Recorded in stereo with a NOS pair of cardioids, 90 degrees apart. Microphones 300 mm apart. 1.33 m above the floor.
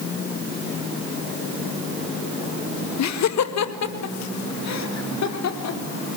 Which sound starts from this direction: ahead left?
Laughter, at 3.0 s.